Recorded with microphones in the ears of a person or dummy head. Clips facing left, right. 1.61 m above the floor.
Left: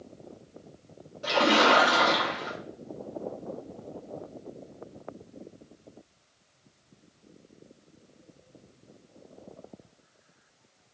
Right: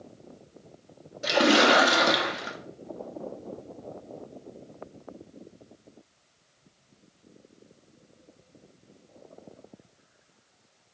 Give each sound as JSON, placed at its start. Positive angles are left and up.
{"t": 1.2, "sound": "a splash", "side_deg": -25, "distance_m": 0.6}